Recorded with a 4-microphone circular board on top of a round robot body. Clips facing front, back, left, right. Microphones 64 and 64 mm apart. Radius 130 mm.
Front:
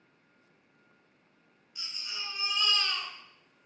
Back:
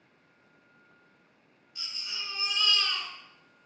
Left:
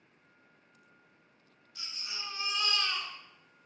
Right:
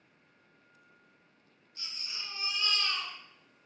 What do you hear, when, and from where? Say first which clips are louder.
1.8 s a baby crying: back 1 dB, left 1 dB; 85° left, 4.5 m